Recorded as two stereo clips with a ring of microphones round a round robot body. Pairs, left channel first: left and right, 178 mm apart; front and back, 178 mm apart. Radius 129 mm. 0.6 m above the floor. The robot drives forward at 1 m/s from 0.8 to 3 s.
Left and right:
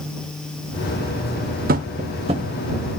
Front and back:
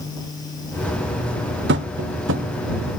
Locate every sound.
1.7 s tapping: 140° right, 0.9 m; by 2.5 s 160° right, 1.6 m